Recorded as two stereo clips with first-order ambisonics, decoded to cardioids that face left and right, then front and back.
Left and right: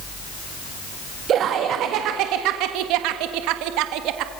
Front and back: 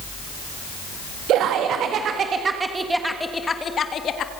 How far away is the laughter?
About 1.6 m.